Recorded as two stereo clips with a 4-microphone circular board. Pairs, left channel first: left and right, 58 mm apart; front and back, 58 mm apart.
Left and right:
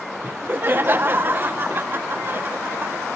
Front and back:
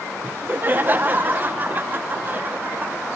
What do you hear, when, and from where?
0.2 s laughter: 130° right, 0.8 m